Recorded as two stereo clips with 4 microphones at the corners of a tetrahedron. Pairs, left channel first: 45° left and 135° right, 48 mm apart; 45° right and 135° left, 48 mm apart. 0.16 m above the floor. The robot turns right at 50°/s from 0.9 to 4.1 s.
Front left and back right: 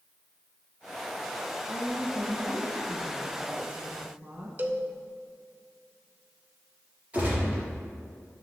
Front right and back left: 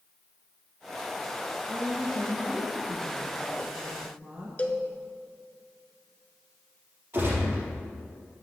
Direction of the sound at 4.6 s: 95° right.